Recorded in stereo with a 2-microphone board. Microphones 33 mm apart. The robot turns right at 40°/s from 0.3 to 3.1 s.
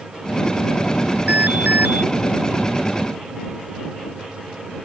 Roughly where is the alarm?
Behind right.